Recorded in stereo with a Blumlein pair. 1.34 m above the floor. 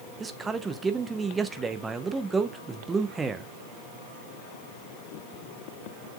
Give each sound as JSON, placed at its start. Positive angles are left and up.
{"t": 0.2, "sound": "a man speaking", "azimuth_deg": -15, "distance_m": 0.9}